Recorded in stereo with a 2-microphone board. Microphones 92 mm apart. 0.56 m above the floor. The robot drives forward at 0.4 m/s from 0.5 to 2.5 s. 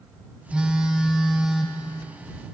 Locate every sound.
0.5 s a phone buzzing: 10° right (ahead or behind), 0.5 m; by 1.8 s 5° right (ahead or behind), 1.0 m